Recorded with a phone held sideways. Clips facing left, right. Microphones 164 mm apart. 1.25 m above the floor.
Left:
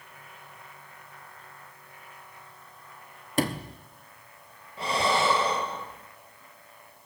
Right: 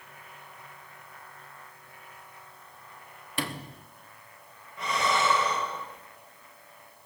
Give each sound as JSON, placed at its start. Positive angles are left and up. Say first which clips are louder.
{"t": 3.4, "sound": "a sliding door", "louder": "left 7 dB", "side_deg": 45, "distance_m": 0.8}
{"t": 4.8, "sound": "breathing", "louder": "left 2 dB", "side_deg": 30, "distance_m": 0.9}